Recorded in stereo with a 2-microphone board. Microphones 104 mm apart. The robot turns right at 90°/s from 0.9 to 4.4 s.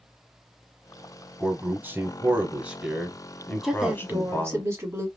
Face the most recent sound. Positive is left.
turn(degrees=-25)  # may be behind; listen again after turning